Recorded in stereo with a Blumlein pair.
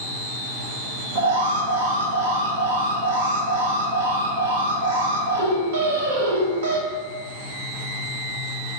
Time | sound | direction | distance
1.1 | an alarm | 60° right | 0.6 m